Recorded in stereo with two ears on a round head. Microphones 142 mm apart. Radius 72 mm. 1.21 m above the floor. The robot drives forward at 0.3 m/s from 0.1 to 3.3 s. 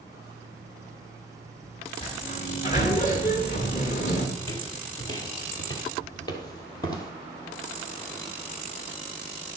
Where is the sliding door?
40° left (ahead or behind), 2 m; by 4.3 s 50° left (ahead or behind), 2.0 m.